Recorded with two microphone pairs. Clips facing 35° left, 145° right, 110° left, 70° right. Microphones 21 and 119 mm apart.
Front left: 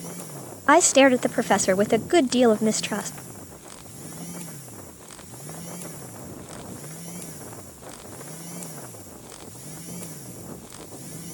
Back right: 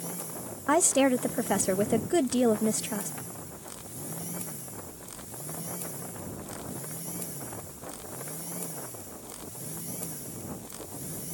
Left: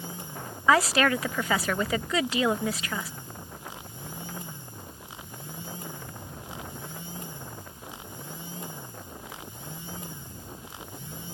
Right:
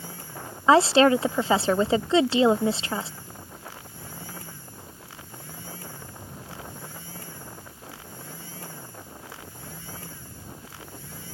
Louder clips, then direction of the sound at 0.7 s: Front left 8 dB, right 6 dB; 15° right.